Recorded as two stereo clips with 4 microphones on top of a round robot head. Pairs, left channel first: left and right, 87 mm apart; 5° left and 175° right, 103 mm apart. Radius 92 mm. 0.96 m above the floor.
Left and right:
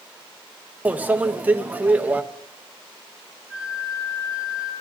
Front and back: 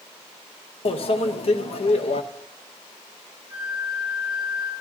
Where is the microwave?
20° right, 0.9 m.